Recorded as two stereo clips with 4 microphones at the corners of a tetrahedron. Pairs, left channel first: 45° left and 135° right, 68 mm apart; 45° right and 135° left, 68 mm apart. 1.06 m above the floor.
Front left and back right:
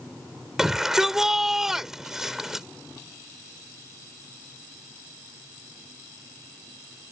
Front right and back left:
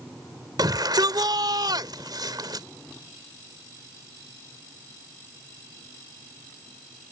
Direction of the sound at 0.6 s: 140° left.